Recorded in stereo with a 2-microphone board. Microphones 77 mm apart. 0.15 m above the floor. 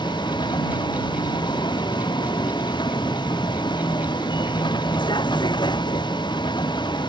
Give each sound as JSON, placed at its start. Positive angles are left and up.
{"t": 0.0, "sound": "a vehicle", "side_deg": 75}